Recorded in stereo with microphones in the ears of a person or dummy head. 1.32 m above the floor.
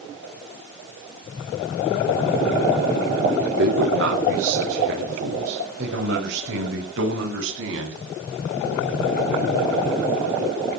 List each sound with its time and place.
3.4 s a man speaking: 65° right (ahead or behind), 3 m; by 8.0 s 75° right (ahead or behind), 10 m